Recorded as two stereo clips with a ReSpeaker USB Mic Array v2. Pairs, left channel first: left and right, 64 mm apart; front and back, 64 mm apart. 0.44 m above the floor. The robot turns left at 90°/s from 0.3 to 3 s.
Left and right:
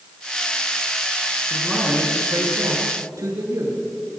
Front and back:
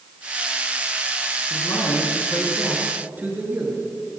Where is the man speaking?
15° left, 7.5 m; by 3.8 s 120° right, 7.5 m.